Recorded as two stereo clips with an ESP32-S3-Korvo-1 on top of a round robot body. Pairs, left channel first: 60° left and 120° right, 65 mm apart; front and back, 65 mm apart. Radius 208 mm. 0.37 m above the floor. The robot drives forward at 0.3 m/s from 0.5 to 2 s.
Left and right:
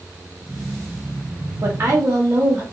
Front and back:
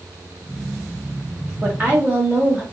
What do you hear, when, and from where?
1.6 s a woman speaking: 120° right, 0.9 m; by 2.6 s 130° right, 1.0 m